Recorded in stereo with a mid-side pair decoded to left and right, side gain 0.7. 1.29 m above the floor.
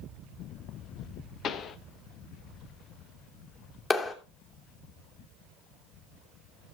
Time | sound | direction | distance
1.4 | a pop | 45° left | 1.0 m
3.9 | a clap | 20° left | 3 m